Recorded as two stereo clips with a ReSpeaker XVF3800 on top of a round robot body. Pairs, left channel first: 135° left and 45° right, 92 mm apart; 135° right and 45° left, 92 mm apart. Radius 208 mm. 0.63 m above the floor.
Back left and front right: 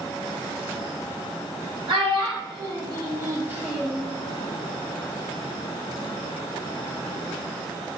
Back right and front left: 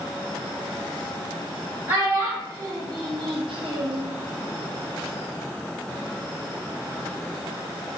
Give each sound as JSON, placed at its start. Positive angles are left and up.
{"t": 1.9, "sound": "a child speaking", "azimuth_deg": -25, "distance_m": 1.3}